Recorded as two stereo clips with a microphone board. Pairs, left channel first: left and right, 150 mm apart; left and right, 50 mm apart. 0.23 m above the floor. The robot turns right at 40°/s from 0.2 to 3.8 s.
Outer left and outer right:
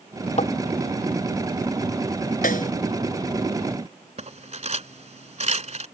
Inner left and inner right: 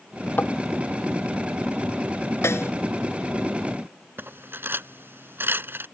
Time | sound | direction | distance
0.4 | tapping | 50° left (ahead or behind) | ?
2.4 | a snare drum | 70° left (ahead or behind) | ?
4.2 | cutlery clinking | 50° right (ahead or behind) | ?